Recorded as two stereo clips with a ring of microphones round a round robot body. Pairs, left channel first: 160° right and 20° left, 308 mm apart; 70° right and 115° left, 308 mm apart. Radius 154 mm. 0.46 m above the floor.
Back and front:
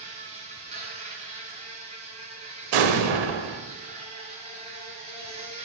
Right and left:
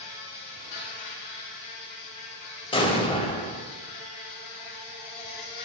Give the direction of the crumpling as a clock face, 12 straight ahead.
I don't hear crumpling.